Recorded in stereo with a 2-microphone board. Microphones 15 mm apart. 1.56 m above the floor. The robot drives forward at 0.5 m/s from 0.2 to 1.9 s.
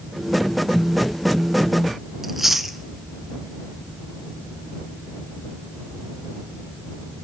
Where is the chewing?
10° right (ahead or behind), 0.9 m.